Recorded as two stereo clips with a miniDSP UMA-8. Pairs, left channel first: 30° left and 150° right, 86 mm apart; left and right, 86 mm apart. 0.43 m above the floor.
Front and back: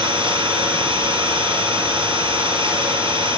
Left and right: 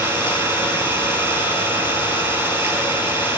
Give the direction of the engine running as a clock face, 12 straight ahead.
5 o'clock.